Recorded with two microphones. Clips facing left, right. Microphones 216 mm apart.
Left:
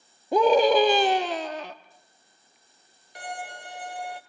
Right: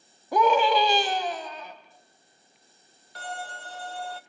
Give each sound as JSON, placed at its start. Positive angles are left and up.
{"t": 0.3, "sound": "a scream", "side_deg": 25, "distance_m": 1.0}
{"t": 3.1, "sound": "a violin", "side_deg": 15, "distance_m": 0.8}